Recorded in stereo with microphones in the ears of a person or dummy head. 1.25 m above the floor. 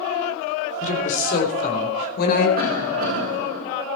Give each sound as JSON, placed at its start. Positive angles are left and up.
{"t": 0.8, "sound": "a woman speaking", "side_deg": 50, "distance_m": 3.5}
{"t": 2.6, "sound": "a cough", "side_deg": -50, "distance_m": 6.0}